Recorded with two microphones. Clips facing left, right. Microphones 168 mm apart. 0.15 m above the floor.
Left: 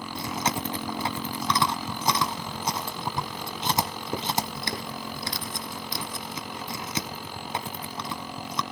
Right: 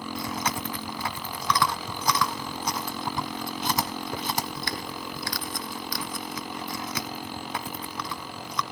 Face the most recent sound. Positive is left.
turn(degrees=25)  # may be behind; listen again after turning